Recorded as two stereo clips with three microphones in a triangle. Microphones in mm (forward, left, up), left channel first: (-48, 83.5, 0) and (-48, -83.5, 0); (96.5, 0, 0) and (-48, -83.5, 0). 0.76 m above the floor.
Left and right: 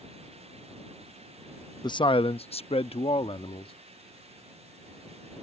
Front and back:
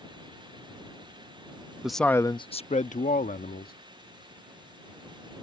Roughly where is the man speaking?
Behind left.